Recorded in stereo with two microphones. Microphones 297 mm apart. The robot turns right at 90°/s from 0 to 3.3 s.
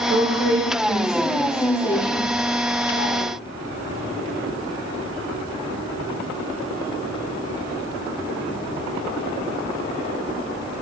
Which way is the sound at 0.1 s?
115° right.